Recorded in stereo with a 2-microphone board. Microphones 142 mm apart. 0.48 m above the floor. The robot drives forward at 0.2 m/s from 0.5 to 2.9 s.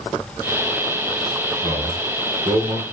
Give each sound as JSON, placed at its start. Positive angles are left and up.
{"t": 1.6, "sound": "a man speaking", "side_deg": -55, "distance_m": 1.3}